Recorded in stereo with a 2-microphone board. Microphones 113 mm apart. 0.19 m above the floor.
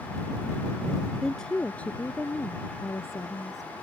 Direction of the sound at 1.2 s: 5° left (ahead or behind).